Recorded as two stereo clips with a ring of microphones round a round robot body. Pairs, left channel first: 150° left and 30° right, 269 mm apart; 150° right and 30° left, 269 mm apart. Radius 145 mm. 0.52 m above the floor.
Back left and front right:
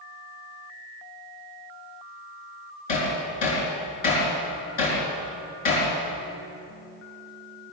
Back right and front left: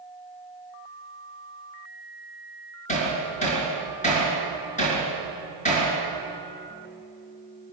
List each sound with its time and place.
2.9 s hammering: 145° left, 6 m